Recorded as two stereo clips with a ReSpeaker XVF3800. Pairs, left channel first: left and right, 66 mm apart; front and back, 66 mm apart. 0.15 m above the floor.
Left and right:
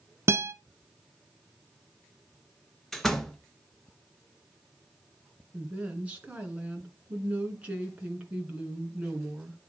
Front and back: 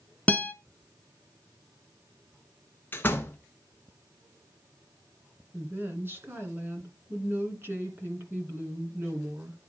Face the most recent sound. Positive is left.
turn(degrees=-150)